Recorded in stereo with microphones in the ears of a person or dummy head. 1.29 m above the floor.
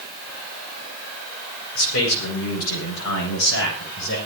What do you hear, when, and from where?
1.8 s a man speaking: 80° left, 8.5 m; by 4.2 s 70° left (ahead or behind), 10.5 m